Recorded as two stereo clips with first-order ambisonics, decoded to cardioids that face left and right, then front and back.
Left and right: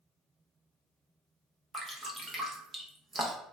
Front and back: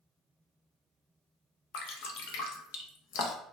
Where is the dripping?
10° right, 0.7 m.